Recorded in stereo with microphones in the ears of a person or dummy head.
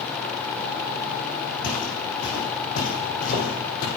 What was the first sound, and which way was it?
Footsteps, 60° left (ahead or behind).